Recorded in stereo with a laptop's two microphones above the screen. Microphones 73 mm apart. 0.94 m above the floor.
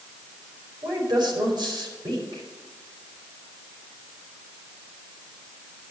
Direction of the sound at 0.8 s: 80° right.